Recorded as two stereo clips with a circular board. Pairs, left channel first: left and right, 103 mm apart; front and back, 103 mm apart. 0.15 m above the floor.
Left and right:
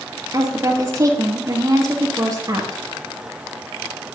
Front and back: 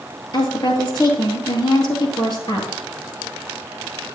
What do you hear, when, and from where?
0.3 s a woman speaking: 35° right, 2.5 m